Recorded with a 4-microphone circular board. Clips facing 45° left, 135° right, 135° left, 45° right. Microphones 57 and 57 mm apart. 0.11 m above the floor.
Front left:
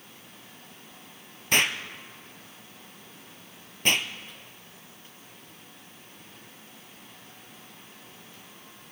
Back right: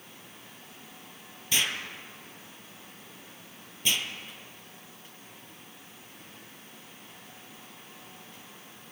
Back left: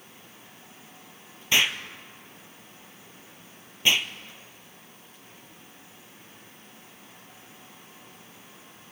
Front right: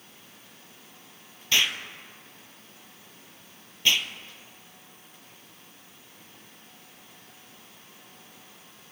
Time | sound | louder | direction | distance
1.5 | an explosion | front left 5 dB, back left 2 dB | 65° left | 0.8 m